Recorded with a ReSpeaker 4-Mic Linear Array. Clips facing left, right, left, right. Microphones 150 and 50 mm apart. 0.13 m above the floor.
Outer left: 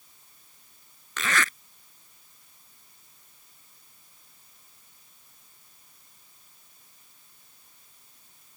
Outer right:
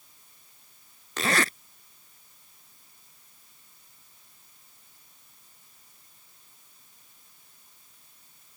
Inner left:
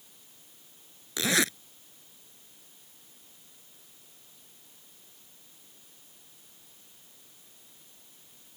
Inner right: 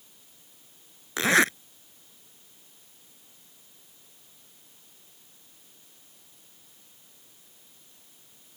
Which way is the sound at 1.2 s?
40° right (ahead or behind).